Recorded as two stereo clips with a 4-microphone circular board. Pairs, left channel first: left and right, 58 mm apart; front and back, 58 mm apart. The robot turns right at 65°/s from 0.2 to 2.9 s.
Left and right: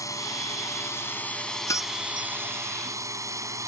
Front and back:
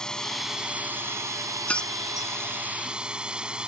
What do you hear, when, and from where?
0.0 s a drone: 80° left; by 3.7 s 105° right
1.7 s keys jangling: 65° left; by 2.3 s 105° left